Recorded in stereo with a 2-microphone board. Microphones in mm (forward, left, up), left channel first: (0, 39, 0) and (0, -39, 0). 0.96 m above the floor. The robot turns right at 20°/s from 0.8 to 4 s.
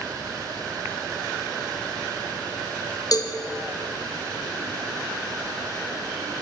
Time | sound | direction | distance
3.1 | a cowbell | 55° left (ahead or behind) | 0.7 m